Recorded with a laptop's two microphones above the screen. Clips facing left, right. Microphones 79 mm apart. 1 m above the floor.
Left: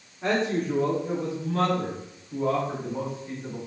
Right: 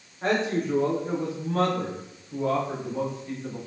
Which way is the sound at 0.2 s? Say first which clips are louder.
Even; 45° right (ahead or behind).